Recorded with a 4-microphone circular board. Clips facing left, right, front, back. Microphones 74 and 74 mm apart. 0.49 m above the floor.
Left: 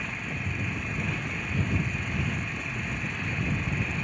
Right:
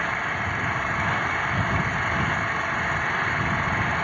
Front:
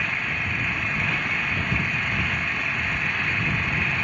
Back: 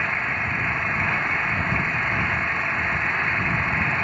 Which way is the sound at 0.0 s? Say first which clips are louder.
Right 9 dB, back 3 dB; 115° right.